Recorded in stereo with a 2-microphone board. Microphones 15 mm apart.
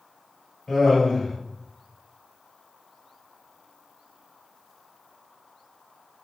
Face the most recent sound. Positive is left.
turn(degrees=25)  # may be behind; listen again after turning